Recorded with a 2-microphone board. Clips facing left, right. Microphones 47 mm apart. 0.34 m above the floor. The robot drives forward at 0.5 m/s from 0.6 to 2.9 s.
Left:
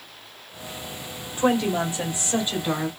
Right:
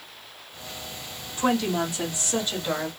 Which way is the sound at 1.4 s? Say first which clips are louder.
Left 2 dB; 25° left (ahead or behind).